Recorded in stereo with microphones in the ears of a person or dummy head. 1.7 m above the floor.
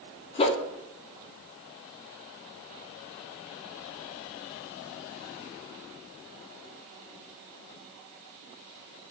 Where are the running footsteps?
No running footsteps in this recording.